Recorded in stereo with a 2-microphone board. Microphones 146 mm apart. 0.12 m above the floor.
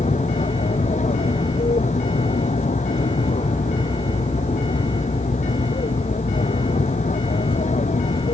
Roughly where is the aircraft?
Left.